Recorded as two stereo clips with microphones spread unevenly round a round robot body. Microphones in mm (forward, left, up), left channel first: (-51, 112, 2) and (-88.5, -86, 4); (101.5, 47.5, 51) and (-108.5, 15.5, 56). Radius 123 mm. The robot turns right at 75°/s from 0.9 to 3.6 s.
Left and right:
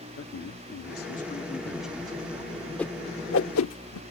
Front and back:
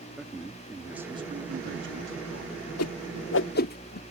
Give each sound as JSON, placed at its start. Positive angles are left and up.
{"t": 0.2, "sound": "a man speaking", "azimuth_deg": 100}
{"t": 2.8, "sound": "a whoosh", "azimuth_deg": -5}